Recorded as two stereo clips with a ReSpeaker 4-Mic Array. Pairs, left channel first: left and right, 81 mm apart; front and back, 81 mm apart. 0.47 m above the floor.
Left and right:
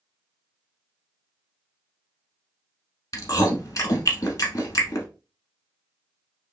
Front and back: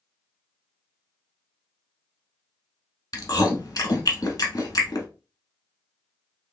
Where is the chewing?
45° left, 1.0 m.